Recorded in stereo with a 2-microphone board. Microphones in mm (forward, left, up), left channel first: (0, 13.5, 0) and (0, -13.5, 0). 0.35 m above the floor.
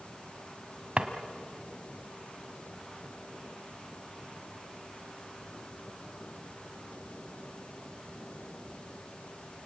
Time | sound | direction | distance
1.0 | a drawer | 50° right (ahead or behind) | 1.6 m